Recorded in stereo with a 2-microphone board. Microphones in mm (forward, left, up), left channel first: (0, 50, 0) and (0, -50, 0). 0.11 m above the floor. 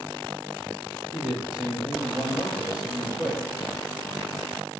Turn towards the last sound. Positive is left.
turn(degrees=-10)  # may be behind; listen again after turning